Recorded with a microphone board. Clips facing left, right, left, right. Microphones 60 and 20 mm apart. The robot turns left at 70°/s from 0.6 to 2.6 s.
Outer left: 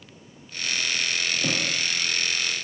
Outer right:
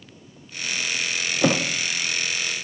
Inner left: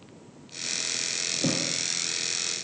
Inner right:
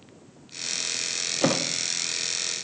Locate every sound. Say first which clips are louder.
1.4 s a thud: outer right 10 dB, inner right 5 dB; 80° right, 3 m; by 1.6 s 60° right (ahead or behind), 3 m